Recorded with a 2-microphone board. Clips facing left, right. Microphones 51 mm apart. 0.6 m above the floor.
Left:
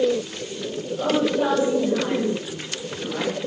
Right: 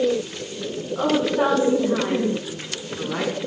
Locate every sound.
0.9 s a woman speaking: 65° right (ahead or behind), 5.5 m